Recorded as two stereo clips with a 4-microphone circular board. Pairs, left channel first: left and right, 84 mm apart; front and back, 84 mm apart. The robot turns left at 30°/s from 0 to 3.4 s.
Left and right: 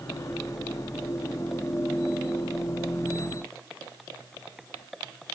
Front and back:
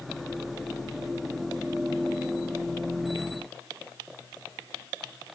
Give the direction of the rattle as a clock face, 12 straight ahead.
No rattle in this recording.